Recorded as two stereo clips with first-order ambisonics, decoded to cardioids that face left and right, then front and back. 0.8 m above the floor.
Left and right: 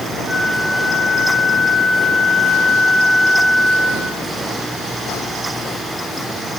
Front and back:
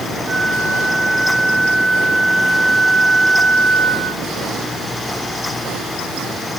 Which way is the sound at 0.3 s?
160° right.